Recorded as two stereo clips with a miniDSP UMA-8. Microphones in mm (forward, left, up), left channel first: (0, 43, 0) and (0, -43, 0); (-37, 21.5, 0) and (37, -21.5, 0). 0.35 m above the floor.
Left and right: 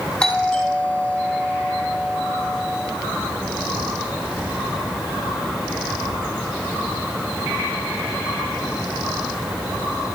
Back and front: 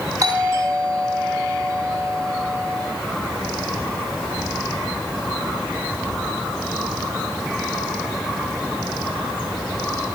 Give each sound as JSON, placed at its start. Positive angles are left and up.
{"t": 0.2, "sound": "a doorbell", "azimuth_deg": 5, "distance_m": 7.5}